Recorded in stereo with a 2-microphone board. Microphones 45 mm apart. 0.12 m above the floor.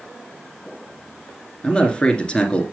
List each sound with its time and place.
1.6 s a man speaking: 25° left (ahead or behind), 2 m